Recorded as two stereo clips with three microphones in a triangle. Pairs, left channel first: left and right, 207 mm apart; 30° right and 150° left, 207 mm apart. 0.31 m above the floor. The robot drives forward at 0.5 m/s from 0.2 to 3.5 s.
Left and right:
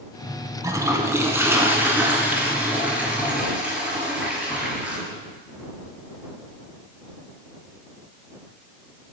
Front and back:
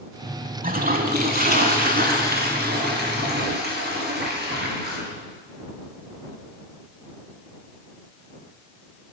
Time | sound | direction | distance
0.6 | a toilet flushing | 160° right | 0.8 m